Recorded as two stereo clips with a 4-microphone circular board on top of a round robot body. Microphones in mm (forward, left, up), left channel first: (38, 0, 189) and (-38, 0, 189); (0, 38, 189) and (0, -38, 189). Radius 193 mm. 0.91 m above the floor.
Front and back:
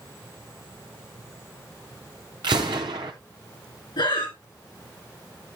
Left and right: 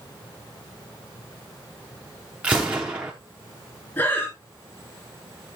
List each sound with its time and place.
2.4 s a gunshot: 165° right, 0.5 m
4.0 s breathing: 25° left, 2.5 m